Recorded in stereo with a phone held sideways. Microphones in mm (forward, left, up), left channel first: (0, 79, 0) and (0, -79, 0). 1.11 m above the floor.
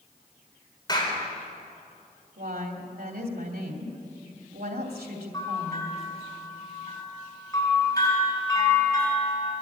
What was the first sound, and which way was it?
A clap, 30° left (ahead or behind).